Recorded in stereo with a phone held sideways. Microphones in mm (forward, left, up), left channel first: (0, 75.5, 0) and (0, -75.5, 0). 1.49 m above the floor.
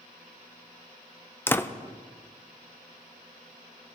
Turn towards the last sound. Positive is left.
turn(degrees=15)  # may be behind; listen again after turning